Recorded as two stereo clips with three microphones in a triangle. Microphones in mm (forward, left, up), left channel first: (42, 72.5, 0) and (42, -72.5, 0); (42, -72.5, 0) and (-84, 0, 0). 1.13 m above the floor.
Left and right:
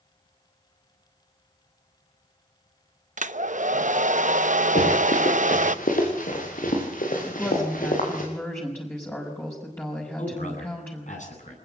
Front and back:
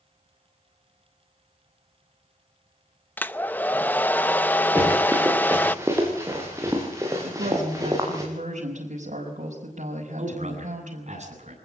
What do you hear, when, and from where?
3.2 s a hair dryer: 110° right, 0.7 m
4.8 s running footsteps: 75° left, 7 m; by 8.2 s 85° left, 9 m
7.2 s a woman speaking: 165° left, 5 m
10.2 s a man speaking: 115° left, 9.5 m